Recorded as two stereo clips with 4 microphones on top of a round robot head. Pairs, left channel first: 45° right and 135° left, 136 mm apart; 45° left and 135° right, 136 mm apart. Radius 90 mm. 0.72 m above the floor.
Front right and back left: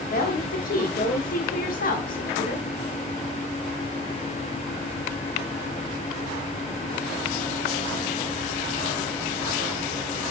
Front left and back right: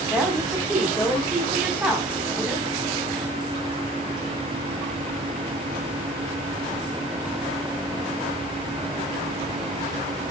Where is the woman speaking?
50° right, 1.9 m.